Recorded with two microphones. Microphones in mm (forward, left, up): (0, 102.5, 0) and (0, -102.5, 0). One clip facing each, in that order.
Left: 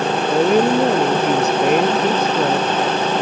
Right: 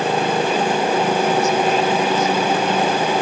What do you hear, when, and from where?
0.3 s a woman speaking: 55° left (ahead or behind)